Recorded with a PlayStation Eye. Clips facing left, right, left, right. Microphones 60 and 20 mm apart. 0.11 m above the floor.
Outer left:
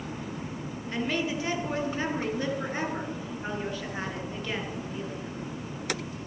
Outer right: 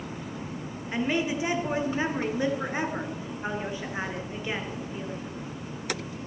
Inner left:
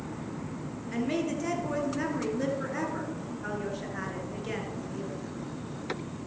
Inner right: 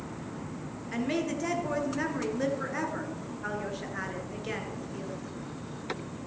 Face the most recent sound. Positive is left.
turn(degrees=-15)  # may be behind; listen again after turning